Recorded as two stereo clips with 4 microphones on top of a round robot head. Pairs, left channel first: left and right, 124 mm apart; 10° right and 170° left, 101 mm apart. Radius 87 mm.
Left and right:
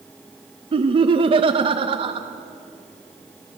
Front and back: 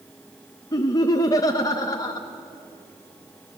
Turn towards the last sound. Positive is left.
turn(degrees=-55)